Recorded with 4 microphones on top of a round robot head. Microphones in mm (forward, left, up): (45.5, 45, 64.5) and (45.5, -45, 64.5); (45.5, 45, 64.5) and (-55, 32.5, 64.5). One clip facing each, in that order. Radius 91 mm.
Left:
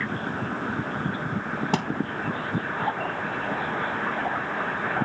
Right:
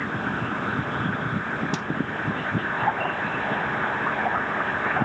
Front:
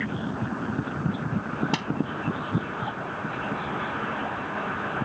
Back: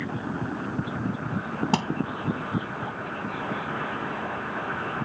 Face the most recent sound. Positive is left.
turn(degrees=135)